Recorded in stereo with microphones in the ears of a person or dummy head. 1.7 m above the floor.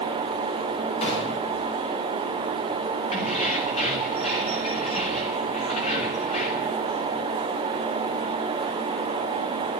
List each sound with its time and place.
1.0 s a gunshot: 35° left (ahead or behind), 6.5 m
3.1 s keys jangling: 40° left (ahead or behind), 2.5 m